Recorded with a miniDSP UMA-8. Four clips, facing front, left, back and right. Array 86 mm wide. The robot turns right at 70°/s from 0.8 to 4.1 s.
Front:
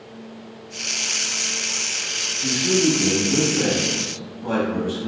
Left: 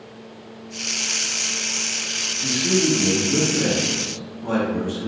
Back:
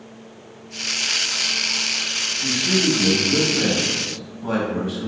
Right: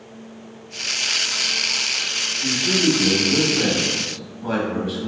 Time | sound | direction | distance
2.4 | a man speaking | 135° left | 1.0 m